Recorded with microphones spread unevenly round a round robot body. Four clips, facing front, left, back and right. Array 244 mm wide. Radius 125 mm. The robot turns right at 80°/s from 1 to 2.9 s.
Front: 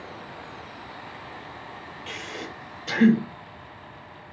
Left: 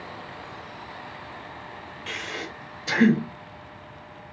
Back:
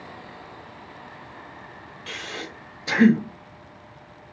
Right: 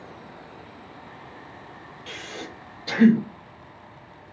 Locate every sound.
2.1 s breathing: 110° left, 1.1 m; by 3.2 s 175° left, 1.1 m